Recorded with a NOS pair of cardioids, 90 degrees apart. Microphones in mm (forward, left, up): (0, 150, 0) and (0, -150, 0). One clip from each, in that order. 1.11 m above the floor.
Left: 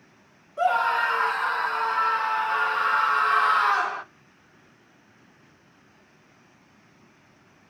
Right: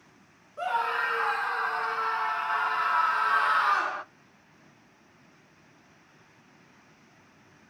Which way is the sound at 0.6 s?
35° left.